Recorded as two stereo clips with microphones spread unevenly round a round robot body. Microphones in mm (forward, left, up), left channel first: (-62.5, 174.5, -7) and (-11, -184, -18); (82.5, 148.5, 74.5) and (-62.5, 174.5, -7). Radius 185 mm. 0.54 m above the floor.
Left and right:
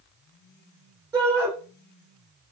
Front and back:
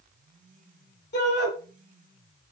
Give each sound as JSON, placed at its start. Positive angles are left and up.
{"t": 1.1, "sound": "a shout", "azimuth_deg": 0, "distance_m": 5.0}